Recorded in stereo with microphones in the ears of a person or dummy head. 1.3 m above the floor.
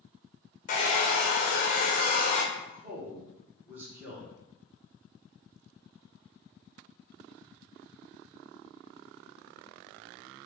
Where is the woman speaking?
10° right (ahead or behind), 1.1 m.